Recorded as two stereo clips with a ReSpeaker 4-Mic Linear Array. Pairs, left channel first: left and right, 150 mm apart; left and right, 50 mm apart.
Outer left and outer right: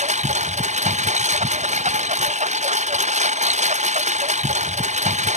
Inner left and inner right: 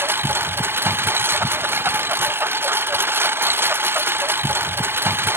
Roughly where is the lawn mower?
Right.